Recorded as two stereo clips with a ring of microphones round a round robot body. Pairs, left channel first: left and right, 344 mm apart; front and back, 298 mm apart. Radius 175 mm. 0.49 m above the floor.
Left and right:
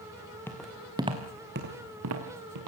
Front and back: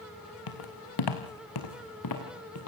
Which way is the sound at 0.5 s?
5° left.